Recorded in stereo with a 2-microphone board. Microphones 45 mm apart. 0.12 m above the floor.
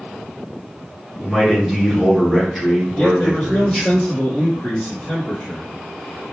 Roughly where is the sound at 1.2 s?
Centre.